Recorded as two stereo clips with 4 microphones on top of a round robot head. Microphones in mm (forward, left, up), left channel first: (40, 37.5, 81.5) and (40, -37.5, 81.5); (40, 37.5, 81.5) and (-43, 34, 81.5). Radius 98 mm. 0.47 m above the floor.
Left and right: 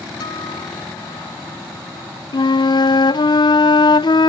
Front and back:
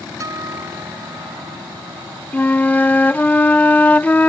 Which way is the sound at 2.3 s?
75° left.